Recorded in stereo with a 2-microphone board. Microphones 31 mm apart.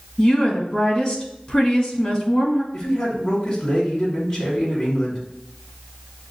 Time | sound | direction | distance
0.2 | a woman speaking | 35° left (ahead or behind) | 1.6 m
2.7 | a man speaking | 15° left (ahead or behind) | 1.6 m